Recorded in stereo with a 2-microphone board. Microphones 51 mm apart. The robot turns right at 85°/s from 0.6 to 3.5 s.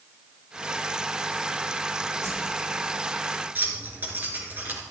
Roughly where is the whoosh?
Left.